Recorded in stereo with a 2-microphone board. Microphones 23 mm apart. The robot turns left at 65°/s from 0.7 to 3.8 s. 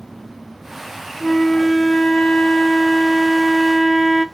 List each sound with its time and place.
1.2 s a flute: 170° left, 1.1 m; by 4.2 s straight ahead, 1.1 m